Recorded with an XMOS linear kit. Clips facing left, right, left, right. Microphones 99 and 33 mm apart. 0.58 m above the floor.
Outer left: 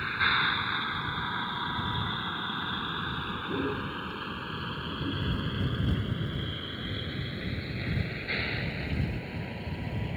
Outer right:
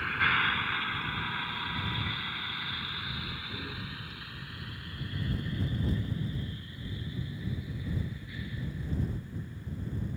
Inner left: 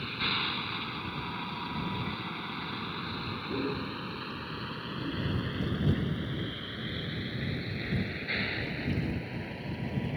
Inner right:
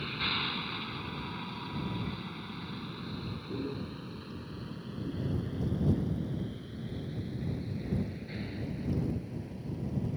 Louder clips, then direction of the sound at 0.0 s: Outer left 1 dB, inner left 1 dB; 5° left (ahead or behind).